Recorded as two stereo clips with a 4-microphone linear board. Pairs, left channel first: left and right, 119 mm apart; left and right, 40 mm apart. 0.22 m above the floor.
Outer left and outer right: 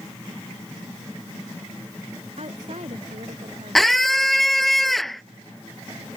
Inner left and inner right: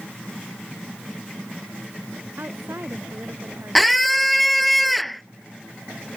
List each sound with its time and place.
2.4 s a woman speaking: 65° right (ahead or behind)
3.8 s a scream: centre (ahead or behind)